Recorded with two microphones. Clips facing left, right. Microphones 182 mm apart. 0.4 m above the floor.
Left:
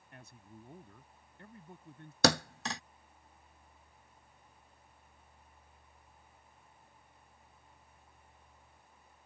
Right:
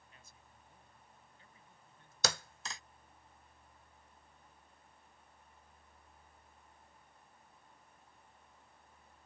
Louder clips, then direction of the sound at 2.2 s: Left 11 dB; 70° left (ahead or behind).